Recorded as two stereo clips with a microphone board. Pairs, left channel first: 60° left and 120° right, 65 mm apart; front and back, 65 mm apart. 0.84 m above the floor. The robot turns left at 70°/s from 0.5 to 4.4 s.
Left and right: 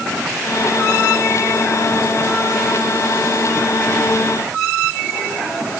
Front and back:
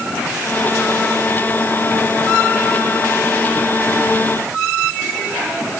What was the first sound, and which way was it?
Only background noise.